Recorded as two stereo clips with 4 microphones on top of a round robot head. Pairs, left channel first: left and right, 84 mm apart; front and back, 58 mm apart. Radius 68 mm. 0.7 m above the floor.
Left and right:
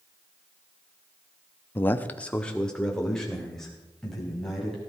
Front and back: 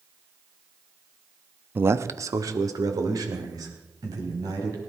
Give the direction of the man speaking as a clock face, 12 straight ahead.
7 o'clock.